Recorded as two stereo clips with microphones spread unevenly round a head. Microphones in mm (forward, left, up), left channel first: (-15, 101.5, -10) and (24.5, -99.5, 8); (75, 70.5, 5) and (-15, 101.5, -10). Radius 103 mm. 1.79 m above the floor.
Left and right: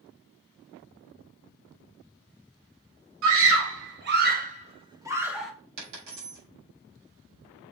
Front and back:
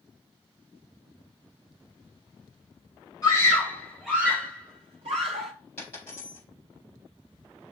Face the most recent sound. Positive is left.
turn(degrees=-100)